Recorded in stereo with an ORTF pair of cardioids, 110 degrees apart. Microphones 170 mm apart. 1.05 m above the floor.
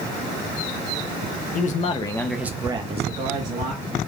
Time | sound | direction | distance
1.6 | a man speaking | 55° left | 1.0 m